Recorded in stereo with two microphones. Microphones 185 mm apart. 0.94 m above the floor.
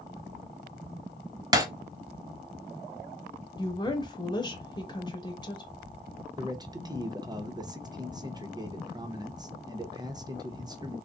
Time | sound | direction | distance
1.5 | breaking glass | 20° right (ahead or behind) | 0.8 m
3.6 | a woman speaking | 25° left (ahead or behind) | 1.1 m
6.4 | a man speaking | 20° right (ahead or behind) | 0.6 m